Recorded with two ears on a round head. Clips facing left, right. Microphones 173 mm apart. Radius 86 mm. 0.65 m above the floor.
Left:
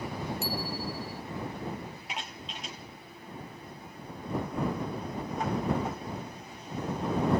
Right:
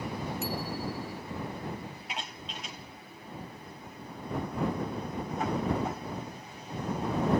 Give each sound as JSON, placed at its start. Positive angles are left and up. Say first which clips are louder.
{"t": 0.4, "sound": "a bicycle bell", "louder": "even", "side_deg": 30}